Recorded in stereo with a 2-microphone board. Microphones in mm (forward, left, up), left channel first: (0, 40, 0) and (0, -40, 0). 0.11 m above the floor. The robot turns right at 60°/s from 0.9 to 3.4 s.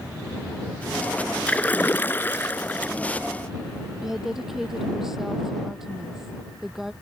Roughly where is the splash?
Centre.